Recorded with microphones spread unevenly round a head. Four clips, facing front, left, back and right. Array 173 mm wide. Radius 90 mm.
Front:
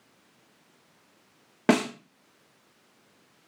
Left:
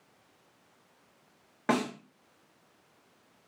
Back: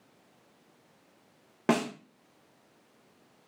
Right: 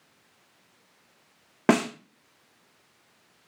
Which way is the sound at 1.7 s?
60° right.